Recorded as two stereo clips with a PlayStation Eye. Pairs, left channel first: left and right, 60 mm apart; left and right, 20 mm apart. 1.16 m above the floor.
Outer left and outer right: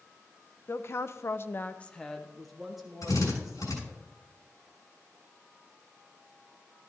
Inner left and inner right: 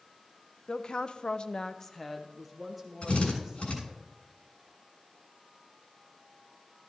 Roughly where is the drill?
Left.